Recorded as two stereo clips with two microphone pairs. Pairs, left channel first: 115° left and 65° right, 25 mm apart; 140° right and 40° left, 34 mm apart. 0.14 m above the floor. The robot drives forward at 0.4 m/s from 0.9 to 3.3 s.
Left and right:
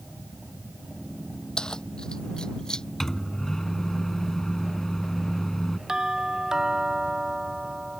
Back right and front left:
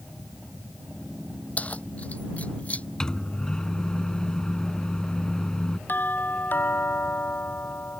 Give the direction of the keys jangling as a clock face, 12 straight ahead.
6 o'clock.